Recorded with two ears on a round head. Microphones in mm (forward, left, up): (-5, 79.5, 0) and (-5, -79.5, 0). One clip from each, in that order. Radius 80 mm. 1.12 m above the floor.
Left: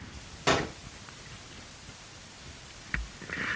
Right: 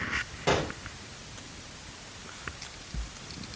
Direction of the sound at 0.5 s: 50° left (ahead or behind).